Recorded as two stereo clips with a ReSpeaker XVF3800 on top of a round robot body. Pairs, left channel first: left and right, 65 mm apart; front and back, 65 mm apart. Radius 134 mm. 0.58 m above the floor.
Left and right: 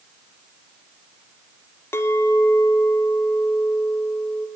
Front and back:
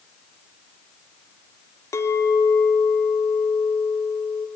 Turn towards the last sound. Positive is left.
turn(degrees=40)